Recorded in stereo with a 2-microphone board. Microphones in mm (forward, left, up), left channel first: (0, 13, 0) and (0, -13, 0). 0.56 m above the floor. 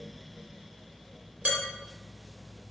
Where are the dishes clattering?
60° right (ahead or behind), 1.3 m.